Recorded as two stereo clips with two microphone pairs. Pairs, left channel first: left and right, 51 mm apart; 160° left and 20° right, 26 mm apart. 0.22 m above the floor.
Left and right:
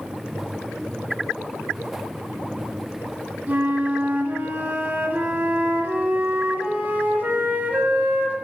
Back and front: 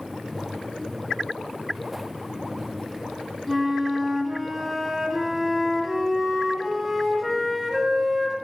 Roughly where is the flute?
Right.